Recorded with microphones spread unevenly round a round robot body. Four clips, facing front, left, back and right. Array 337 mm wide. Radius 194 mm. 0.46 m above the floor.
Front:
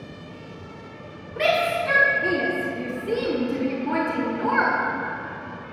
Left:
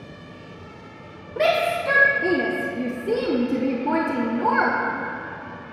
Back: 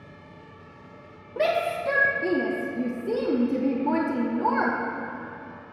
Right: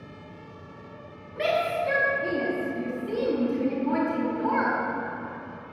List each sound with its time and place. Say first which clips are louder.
1.4 s a shout: left 5 dB, front 2 dB; 85° left, 1.1 m